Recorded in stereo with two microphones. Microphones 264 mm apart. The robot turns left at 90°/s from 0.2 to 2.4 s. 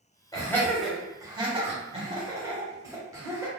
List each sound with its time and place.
0.3 s laughter: 15° left (ahead or behind), 1.0 m; by 3.5 s 10° right (ahead or behind), 1.0 m